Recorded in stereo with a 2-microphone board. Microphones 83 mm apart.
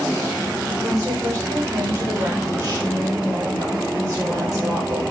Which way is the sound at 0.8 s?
35° right (ahead or behind).